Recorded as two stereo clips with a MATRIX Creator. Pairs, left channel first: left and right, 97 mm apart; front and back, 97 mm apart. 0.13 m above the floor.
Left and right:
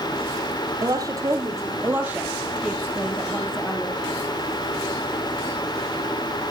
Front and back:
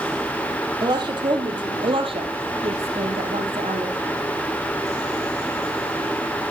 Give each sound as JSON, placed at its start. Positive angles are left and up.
{"t": 0.8, "sound": "a woman speaking", "azimuth_deg": -135, "distance_m": 3.5}